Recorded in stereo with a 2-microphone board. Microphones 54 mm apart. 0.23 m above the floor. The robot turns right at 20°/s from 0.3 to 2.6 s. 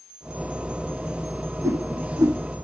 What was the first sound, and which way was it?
A whoosh, 70° right (ahead or behind).